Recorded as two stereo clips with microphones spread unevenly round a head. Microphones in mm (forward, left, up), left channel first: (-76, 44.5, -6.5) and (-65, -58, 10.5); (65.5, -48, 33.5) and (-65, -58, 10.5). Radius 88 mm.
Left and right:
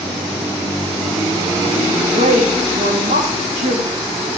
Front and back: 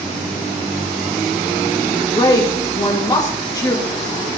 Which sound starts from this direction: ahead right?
A woman speaking, at 1.8 s.